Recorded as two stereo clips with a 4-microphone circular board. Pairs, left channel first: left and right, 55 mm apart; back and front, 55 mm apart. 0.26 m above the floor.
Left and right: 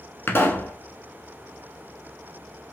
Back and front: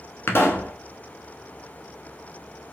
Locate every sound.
0.3 s a pop: 140° left, 0.7 m